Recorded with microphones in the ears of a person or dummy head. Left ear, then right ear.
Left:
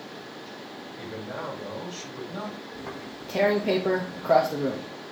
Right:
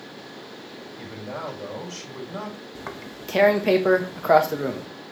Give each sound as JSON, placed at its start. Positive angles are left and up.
{"t": 0.9, "sound": "a man speaking", "side_deg": -65, "distance_m": 6.0}
{"t": 2.8, "sound": "tearing paper", "side_deg": -45, "distance_m": 1.2}